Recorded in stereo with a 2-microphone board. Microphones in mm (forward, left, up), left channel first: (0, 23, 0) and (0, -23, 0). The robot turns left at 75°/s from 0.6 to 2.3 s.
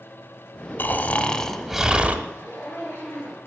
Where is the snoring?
70° left, 1.3 m; by 2.2 s 35° right, 1.3 m.